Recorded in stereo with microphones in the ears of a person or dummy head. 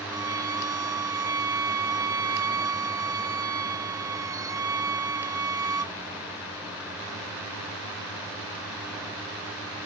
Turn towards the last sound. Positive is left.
turn(degrees=-10)  # may be behind; listen again after turning